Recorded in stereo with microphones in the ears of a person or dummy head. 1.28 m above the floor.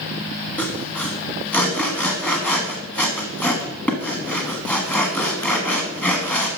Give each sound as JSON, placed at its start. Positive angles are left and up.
{"t": 0.6, "sound": "sawing", "side_deg": 10, "distance_m": 1.1}